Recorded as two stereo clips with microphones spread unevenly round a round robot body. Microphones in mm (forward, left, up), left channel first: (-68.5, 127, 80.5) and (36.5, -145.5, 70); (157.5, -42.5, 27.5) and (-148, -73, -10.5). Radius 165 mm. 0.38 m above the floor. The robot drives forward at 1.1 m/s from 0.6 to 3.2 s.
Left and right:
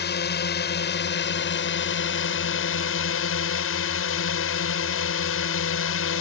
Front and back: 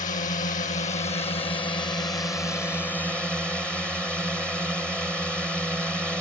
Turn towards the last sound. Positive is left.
turn(degrees=100)